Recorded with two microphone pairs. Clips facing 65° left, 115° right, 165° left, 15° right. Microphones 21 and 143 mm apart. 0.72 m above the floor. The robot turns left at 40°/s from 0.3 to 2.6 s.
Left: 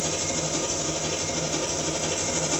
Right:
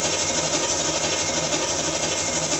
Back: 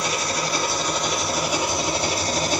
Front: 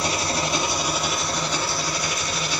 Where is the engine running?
70° right, 1.4 m; by 2.6 s 160° right, 1.4 m.